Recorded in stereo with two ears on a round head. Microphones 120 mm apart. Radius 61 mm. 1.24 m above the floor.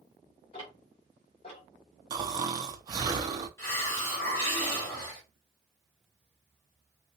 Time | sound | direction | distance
0.5 | ticking | 45° left (ahead or behind) | 1.5 m
2.1 | snoring | 30° right (ahead or behind) | 0.6 m
3.6 | a hiss | 20° left (ahead or behind) | 2 m